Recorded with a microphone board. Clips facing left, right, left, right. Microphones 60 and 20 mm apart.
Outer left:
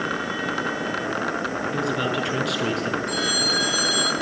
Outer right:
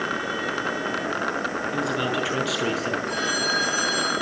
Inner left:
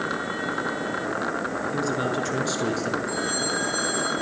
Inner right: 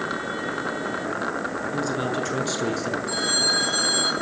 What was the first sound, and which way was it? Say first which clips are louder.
A man speaking: outer left 1 dB, even; centre (ahead or behind).